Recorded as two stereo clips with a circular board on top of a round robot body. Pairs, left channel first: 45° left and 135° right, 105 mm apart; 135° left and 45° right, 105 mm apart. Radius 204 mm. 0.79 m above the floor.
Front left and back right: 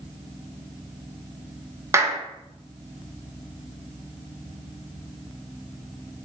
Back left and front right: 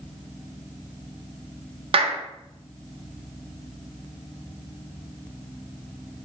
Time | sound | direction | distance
1.9 | a clap | 75° right | 0.7 m